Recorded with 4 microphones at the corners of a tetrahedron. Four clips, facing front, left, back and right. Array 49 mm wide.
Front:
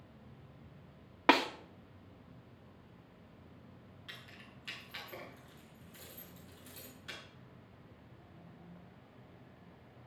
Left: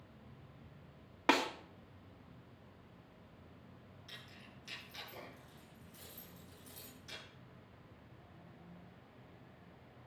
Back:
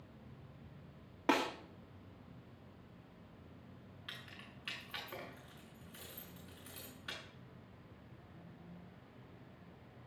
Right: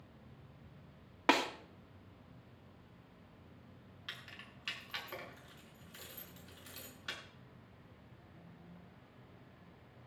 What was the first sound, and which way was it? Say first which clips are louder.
A snare drum: right 1 dB, front 6 dB; 5° right.